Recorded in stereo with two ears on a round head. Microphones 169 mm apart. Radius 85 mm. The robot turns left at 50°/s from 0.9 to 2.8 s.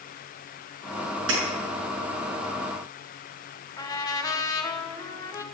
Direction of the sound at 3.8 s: 20° left (ahead or behind).